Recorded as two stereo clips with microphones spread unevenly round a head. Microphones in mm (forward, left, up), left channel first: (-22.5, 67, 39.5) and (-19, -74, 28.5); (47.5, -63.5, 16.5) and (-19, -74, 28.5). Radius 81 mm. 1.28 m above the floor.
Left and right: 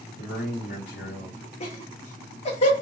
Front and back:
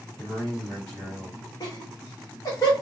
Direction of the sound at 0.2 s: 70° left.